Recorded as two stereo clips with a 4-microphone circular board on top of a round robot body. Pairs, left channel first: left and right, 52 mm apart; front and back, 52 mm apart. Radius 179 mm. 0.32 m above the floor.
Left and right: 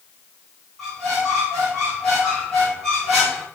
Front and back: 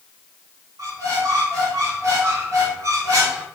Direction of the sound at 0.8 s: 170° left.